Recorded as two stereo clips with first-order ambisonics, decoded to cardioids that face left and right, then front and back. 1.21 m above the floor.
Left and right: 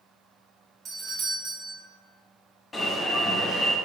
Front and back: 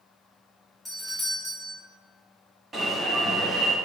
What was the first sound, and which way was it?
A doorbell, 85° right.